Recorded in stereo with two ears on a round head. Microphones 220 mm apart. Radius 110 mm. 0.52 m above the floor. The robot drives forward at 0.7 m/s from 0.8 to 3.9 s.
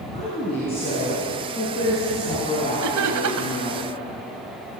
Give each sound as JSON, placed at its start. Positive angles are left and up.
{"t": 0.1, "sound": "a woman speaking", "side_deg": 25, "distance_m": 6.5}
{"t": 2.8, "sound": "laughter", "side_deg": -70, "distance_m": 2.5}